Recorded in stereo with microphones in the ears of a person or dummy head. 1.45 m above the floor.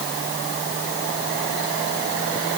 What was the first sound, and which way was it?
Only background noise.